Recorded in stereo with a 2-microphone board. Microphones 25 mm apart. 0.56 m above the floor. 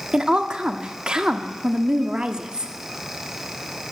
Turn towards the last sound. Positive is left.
turn(degrees=-35)  # may be behind; listen again after turning